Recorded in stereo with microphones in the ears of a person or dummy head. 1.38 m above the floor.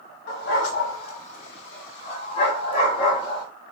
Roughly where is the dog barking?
Left.